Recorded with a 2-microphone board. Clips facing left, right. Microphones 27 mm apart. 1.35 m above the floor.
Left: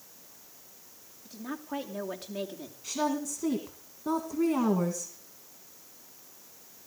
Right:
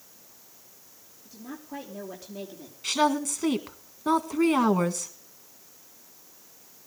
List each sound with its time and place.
1.2 s a woman speaking: 70° left (ahead or behind), 3 m
2.8 s a woman speaking: 70° right (ahead or behind), 1.8 m